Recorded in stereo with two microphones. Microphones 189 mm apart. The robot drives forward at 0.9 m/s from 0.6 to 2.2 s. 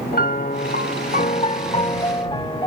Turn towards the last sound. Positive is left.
turn(degrees=25)  # may be behind; listen again after turning